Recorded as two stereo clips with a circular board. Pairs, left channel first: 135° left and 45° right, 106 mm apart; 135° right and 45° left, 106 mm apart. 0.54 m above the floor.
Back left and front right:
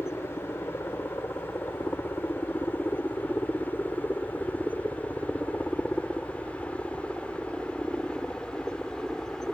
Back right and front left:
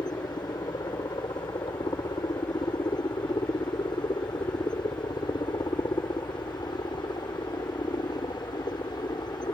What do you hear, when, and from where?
0.0 s a helicopter: 165° right; by 9.5 s 140° right